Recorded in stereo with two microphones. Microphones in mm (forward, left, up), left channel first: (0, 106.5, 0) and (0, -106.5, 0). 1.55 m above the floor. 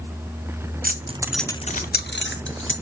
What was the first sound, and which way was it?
Keys jangling, 45° right (ahead or behind).